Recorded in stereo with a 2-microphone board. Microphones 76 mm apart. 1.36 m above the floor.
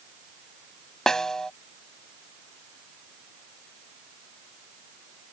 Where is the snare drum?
10° left (ahead or behind).